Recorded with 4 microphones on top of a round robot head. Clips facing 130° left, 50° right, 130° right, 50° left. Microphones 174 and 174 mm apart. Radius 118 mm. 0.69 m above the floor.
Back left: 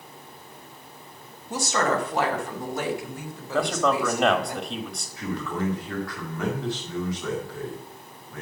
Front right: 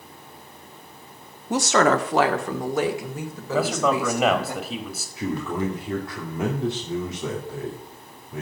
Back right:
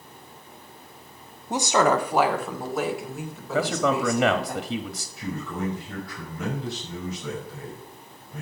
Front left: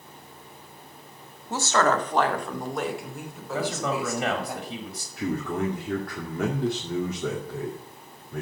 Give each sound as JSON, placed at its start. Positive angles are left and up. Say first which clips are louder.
{"t": 1.5, "sound": "a woman speaking", "louder": "front right 6 dB, back right 2 dB", "azimuth_deg": -60, "distance_m": 1.2}
{"t": 3.5, "sound": "a man speaking", "louder": "front right 1 dB, back right 4 dB", "azimuth_deg": -135, "distance_m": 1.4}
{"t": 5.2, "sound": "a man speaking", "louder": "front right 3 dB, front left 4 dB", "azimuth_deg": 15, "distance_m": 2.5}